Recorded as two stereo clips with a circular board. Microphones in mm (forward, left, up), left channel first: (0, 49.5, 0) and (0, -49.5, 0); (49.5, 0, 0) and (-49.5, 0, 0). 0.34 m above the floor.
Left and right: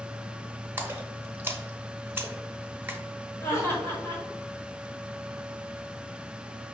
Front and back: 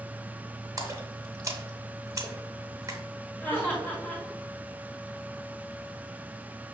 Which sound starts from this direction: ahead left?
Laughter, at 3.4 s.